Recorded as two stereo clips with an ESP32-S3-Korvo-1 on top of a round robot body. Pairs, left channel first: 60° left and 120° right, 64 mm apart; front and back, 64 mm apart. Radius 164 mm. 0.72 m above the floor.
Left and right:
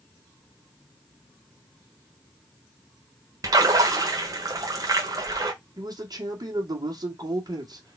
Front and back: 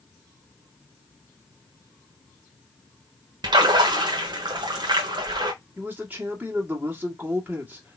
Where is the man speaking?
115° right, 1.7 m.